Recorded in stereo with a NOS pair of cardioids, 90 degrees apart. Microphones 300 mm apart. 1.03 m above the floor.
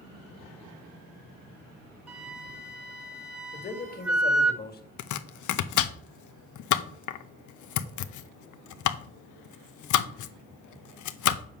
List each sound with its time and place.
2.1 s a flute: 5° right, 1.3 m
3.5 s a man speaking: 30° left, 2.0 m
5.0 s chopping: 70° left, 0.7 m